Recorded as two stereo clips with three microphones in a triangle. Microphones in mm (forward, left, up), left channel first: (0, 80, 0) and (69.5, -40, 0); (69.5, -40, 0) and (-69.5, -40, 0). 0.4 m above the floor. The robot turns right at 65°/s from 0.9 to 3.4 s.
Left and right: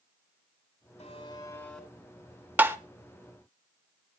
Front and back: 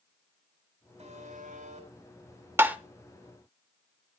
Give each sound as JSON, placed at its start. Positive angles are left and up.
{"t": 1.0, "sound": "a buzzer", "azimuth_deg": 155, "distance_m": 4.0}
{"t": 2.6, "sound": "tapping", "azimuth_deg": -125, "distance_m": 0.8}